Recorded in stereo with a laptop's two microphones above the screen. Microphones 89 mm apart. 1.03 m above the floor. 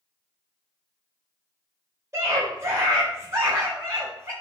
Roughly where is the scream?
Right.